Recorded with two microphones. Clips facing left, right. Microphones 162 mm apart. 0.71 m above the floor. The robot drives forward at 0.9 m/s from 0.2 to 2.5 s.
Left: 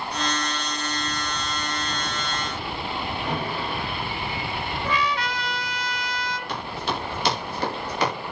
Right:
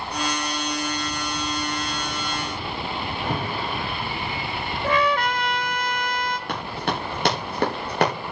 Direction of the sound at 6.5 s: 60° right (ahead or behind).